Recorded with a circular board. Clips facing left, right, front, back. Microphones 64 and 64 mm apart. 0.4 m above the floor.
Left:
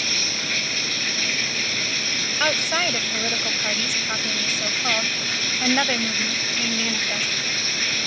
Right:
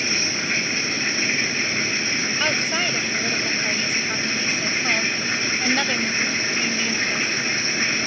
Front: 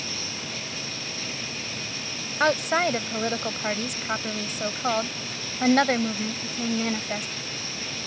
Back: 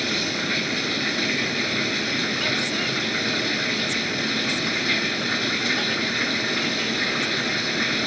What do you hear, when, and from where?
0.0 s running water: 155° right
2.4 s a woman speaking: 20° left